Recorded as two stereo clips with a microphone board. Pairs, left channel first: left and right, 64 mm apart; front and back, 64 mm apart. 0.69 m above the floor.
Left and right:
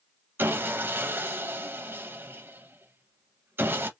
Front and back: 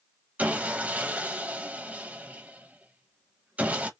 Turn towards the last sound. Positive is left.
turn(degrees=-125)